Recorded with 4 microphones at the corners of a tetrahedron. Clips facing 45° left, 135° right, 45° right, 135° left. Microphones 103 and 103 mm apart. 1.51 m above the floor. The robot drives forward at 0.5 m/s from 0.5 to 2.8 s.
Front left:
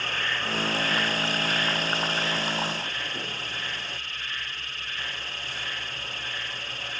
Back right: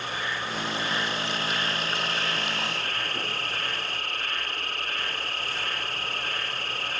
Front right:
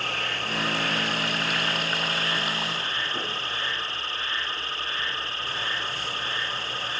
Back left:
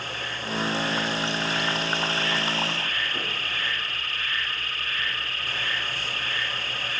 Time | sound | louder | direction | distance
0.0 | an insect | even, front right 2 dB | 60° right | ?